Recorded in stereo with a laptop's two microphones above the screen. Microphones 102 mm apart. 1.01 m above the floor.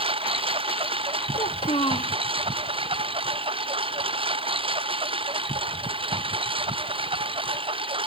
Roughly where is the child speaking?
Left.